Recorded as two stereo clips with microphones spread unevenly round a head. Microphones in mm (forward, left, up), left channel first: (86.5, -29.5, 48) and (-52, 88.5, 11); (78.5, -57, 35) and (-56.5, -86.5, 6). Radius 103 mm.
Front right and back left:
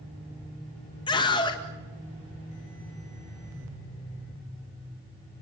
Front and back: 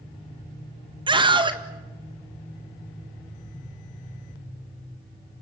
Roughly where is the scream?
Right.